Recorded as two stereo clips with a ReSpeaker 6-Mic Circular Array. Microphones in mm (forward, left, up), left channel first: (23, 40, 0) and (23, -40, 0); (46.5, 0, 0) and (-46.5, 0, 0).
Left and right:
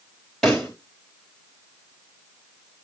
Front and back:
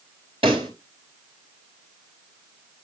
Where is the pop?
175° left, 4 m.